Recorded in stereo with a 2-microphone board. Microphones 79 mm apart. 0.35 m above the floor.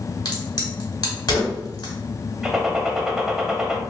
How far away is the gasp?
I don't hear a gasp.